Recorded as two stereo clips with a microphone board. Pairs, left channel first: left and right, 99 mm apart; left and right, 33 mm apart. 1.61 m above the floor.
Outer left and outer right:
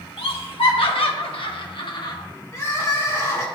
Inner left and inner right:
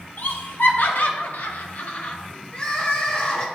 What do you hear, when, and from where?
0.2 s laughter: 65° left (ahead or behind), 1.3 m; by 2.2 s 40° left (ahead or behind), 0.7 m
2.5 s crying: 30° left (ahead or behind), 1.1 m